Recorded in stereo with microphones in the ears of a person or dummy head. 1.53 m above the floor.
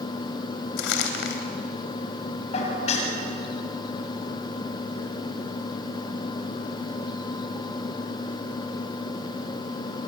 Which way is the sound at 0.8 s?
70° left (ahead or behind).